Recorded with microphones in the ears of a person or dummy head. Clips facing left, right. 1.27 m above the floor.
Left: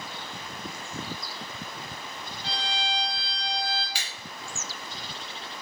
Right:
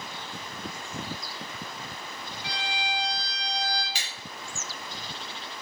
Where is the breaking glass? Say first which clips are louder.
Even; 30° right (ahead or behind), 1.4 m.